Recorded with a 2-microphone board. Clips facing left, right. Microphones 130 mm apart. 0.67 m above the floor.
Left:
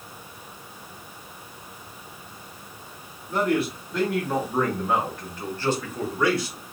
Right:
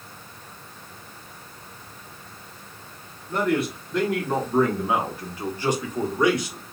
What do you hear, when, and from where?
3.3 s a man speaking: 5° left (ahead or behind), 1.6 m; by 6.6 s 20° right (ahead or behind), 1.3 m